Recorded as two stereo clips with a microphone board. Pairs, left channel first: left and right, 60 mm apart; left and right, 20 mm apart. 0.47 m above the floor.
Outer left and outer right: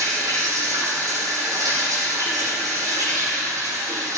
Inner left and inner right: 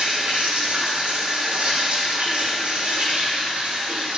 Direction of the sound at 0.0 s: 90° right.